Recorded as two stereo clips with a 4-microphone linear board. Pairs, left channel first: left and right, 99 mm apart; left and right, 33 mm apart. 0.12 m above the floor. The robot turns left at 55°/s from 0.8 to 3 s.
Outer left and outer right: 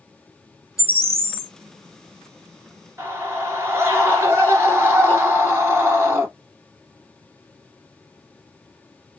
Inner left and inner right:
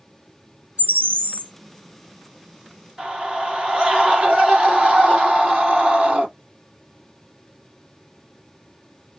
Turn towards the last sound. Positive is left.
turn(degrees=-25)  # may be behind; listen again after turning